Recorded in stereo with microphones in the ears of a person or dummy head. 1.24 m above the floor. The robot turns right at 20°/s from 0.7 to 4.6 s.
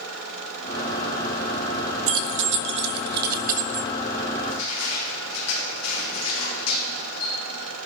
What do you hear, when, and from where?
2.1 s keys jangling: 75° right (ahead or behind), 1.0 m; by 3.9 s 40° right (ahead or behind), 1.0 m
4.4 s crushing: 80° left, 3 m